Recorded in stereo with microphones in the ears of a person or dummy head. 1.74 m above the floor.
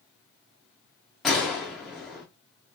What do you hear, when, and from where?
1.2 s a gunshot: centre (ahead or behind), 0.8 m